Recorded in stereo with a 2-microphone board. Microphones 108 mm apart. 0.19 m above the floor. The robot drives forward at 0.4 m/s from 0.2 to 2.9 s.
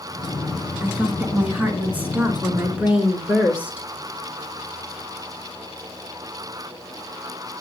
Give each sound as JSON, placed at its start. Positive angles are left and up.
{"t": 0.8, "sound": "a woman speaking", "side_deg": -15, "distance_m": 2.5}